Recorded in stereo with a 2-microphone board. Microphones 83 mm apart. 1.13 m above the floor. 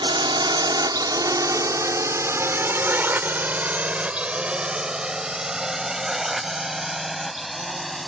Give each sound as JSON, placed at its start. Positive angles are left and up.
{"t": 0.0, "sound": "a drone", "side_deg": -70}